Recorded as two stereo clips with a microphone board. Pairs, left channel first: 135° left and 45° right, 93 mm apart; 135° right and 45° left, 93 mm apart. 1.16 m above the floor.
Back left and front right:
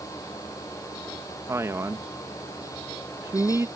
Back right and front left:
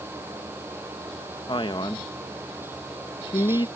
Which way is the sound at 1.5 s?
105° right.